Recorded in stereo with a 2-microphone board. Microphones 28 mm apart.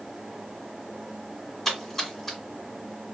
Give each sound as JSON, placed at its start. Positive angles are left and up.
{"t": 1.6, "sound": "a splash", "side_deg": 5, "distance_m": 2.5}